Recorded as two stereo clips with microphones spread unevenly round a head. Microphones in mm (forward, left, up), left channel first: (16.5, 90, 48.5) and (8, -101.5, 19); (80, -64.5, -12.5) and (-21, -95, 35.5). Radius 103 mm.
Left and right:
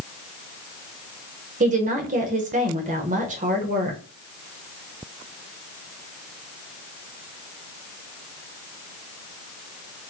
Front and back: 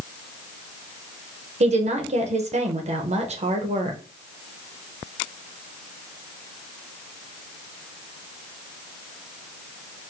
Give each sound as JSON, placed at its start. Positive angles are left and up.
{"t": 1.6, "sound": "a woman speaking", "azimuth_deg": -135, "distance_m": 0.7}